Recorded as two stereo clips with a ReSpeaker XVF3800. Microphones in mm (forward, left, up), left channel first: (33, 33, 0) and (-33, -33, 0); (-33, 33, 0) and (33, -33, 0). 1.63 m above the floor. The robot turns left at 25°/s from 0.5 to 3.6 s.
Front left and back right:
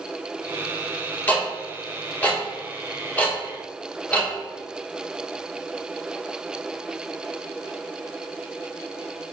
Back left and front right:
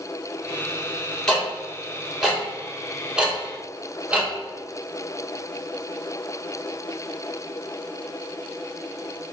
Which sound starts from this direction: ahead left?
Ticking, at 1.3 s.